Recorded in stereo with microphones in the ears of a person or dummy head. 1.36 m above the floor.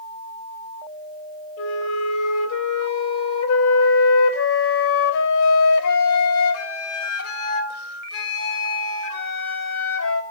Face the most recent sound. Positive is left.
turn(degrees=75)  # may be behind; listen again after turning